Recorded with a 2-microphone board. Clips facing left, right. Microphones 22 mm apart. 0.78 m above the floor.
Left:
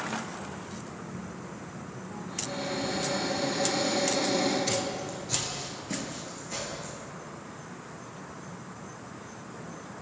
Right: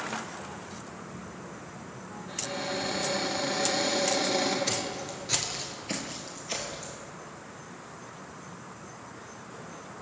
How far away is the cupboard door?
About 1.3 m.